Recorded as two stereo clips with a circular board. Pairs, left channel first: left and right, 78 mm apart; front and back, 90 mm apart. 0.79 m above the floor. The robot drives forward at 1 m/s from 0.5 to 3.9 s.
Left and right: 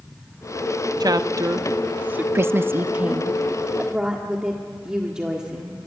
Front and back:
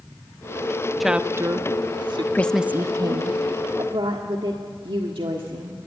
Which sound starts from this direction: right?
A woman speaking, at 1.0 s.